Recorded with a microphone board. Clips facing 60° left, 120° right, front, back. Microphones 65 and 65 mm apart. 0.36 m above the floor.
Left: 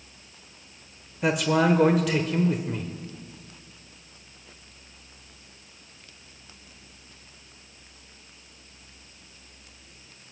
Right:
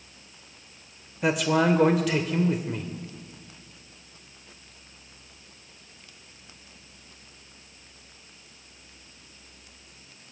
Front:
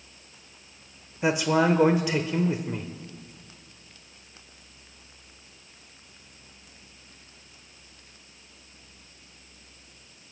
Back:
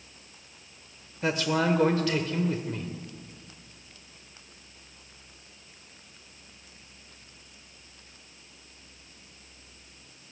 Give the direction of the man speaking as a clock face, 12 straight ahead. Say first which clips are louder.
Even, front 4 dB; 1 o'clock.